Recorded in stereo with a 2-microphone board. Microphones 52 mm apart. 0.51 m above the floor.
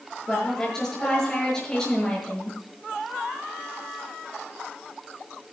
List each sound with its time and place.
0.3 s a woman speaking: 10° left (ahead or behind), 7.5 m